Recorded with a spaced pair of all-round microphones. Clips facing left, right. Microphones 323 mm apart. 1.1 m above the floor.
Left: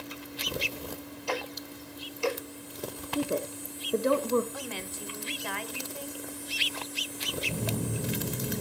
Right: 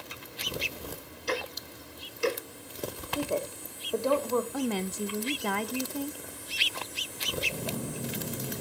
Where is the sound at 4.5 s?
60° right (ahead or behind), 0.7 m.